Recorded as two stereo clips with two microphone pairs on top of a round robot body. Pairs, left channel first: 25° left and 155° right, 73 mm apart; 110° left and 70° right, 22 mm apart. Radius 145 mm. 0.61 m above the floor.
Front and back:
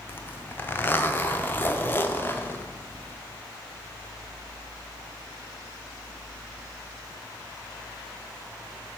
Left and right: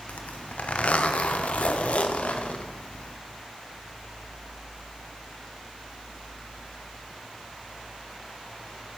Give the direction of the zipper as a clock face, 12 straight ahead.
9 o'clock.